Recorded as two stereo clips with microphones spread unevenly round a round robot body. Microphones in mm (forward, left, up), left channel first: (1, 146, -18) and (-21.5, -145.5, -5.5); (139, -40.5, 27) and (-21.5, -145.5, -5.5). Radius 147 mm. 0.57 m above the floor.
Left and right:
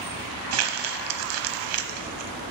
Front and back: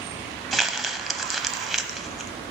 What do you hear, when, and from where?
0.5 s crumpling: 55° right, 0.9 m